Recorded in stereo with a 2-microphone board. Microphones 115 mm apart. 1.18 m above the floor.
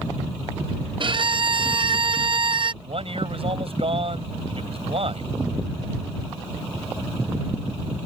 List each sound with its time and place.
1.0 s a violin: 45° right (ahead or behind)
2.8 s a man speaking: 55° right (ahead or behind)